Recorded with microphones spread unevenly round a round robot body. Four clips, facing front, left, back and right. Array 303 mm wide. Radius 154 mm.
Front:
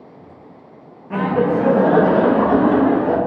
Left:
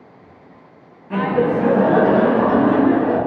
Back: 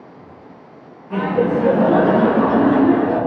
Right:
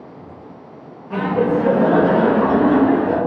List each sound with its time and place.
1.1 s laughter: 50° left, 0.6 m; by 3.2 s 20° left, 1.4 m